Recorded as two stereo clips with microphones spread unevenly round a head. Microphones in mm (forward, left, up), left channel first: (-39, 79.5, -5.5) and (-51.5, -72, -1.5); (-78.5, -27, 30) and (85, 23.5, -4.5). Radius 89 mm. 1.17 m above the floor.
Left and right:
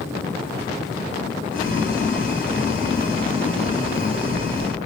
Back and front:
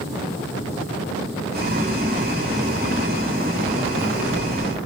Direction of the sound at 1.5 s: 45° left.